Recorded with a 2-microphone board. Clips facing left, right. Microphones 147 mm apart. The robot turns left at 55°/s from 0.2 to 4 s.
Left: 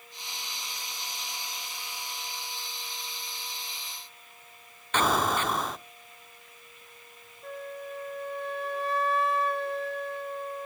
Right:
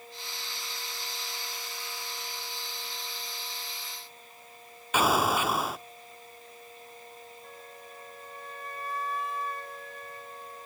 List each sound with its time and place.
4.9 s an explosion: 10° right (ahead or behind), 0.6 m
7.4 s a flute: 70° left (ahead or behind), 0.8 m